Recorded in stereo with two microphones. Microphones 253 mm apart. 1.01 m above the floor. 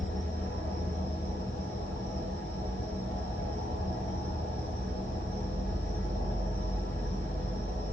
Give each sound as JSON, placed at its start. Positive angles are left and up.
{"t": 0.0, "sound": "an insect", "side_deg": 55, "distance_m": 1.4}